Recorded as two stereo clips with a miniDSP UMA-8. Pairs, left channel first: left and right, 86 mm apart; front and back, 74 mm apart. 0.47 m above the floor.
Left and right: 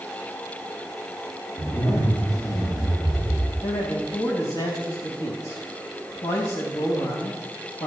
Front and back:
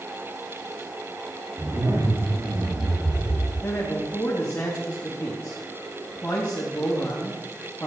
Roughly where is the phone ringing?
No phone ringing in this recording.